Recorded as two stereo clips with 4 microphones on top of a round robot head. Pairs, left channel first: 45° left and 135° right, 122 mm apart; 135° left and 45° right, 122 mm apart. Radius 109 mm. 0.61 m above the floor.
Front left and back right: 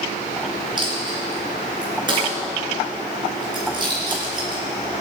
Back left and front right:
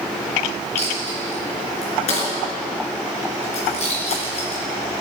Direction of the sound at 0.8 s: 170° left.